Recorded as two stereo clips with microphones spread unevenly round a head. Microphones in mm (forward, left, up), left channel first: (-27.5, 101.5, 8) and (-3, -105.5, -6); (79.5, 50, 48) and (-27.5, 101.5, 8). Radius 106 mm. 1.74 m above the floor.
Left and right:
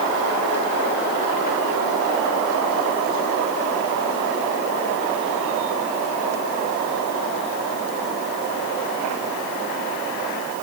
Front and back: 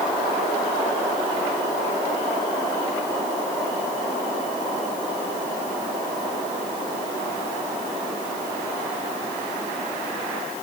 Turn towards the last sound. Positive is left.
No sound to turn to.